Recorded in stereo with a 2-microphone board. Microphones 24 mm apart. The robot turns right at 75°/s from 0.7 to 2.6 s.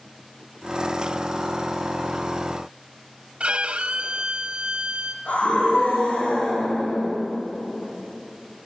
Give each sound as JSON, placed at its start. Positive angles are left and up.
{"t": 3.4, "sound": "a violin", "side_deg": -65, "distance_m": 0.8}
{"t": 5.2, "sound": "a scream", "side_deg": 75, "distance_m": 8.0}